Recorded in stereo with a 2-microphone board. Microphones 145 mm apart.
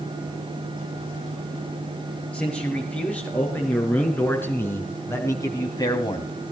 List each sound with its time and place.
2.3 s a man speaking: 5° left (ahead or behind), 6.5 m; by 6.3 s 35° left (ahead or behind), 2.0 m